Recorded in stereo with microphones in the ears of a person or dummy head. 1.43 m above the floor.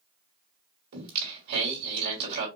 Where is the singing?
55° right (ahead or behind), 2.5 m.